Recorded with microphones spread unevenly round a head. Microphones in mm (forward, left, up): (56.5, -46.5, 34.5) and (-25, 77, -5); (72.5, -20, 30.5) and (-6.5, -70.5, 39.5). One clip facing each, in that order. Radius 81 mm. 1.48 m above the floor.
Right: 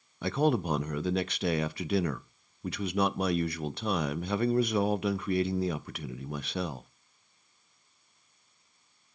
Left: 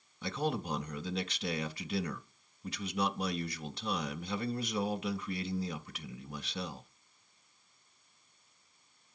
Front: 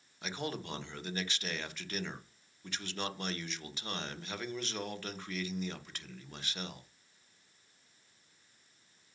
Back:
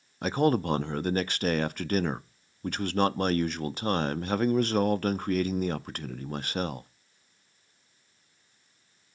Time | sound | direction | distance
0.2 | a man speaking | 105° right | 0.5 m